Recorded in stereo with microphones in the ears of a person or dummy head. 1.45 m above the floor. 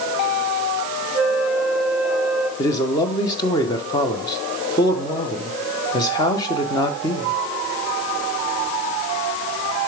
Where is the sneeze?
I don't hear a sneeze.